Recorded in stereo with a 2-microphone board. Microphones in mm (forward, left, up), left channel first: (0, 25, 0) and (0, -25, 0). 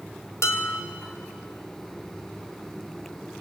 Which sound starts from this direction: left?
Dishes clattering, at 0.4 s.